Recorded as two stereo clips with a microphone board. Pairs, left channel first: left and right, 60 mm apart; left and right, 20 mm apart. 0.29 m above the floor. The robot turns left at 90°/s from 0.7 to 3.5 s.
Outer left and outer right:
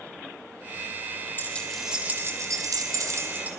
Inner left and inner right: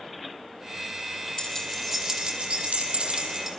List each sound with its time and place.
1.4 s keys jangling: 35° left, 6.5 m; by 3.5 s 155° right, 6.5 m